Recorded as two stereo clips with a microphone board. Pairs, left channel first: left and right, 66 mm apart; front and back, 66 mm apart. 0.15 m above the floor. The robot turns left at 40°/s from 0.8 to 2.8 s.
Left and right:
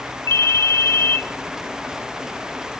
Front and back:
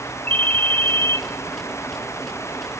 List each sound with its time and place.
0.3 s a ringtone: 60° left, 0.7 m; by 1.2 s 45° left, 0.7 m